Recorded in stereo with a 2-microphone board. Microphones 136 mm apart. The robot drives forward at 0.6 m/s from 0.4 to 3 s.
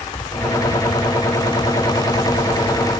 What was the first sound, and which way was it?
Only background noise.